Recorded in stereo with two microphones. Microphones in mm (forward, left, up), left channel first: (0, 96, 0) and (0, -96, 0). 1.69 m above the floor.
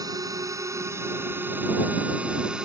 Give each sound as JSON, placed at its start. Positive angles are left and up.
{"t": 0.0, "sound": "a drone", "side_deg": -20}